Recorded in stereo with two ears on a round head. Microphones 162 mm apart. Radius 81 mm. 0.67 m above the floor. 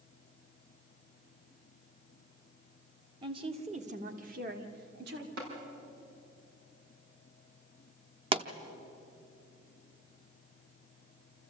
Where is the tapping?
60° right (ahead or behind), 6 m.